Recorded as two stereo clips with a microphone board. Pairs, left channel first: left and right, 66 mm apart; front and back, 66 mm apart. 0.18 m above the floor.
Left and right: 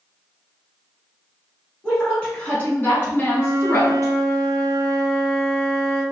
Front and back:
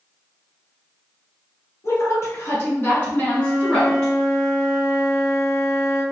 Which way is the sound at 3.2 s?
15° left.